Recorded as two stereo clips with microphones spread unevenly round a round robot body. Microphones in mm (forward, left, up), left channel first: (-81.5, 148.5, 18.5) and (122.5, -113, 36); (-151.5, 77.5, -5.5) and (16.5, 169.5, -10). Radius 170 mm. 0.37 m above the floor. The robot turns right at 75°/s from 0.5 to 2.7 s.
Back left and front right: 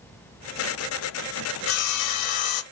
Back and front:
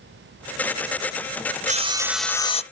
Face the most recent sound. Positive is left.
turn(degrees=155)